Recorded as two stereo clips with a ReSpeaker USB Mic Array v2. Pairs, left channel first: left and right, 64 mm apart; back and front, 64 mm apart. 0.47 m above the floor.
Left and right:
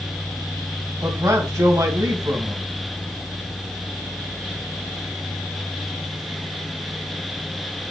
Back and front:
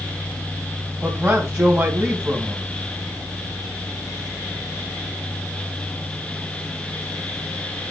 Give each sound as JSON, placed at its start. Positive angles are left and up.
{"t": 1.0, "sound": "a man speaking", "azimuth_deg": -50, "distance_m": 3.5}